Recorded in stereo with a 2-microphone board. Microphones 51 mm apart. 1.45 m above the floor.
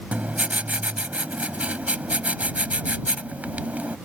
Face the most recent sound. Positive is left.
turn(degrees=-30)  # may be behind; listen again after turning